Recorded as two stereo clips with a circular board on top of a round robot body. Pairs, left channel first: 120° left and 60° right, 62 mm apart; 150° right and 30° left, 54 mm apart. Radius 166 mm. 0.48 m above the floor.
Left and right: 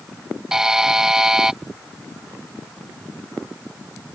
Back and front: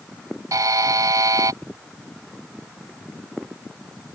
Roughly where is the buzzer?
Ahead.